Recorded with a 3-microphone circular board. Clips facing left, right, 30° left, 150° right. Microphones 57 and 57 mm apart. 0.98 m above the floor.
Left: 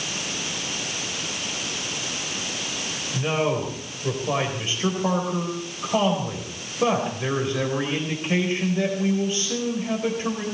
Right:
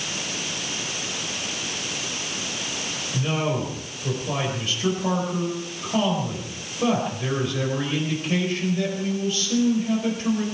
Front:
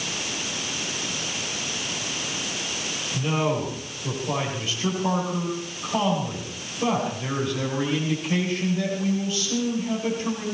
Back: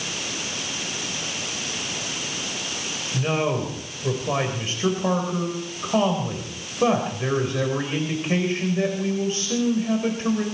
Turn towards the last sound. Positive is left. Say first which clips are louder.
# left 2 dB, back 1 dB
turn(degrees=160)